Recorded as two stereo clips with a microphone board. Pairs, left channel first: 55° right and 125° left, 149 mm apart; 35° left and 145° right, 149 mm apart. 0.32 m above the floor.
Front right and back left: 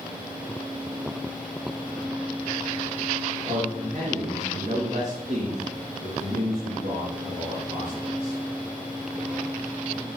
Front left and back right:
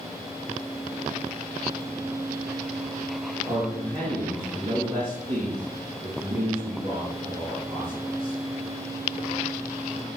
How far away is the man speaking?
About 4 m.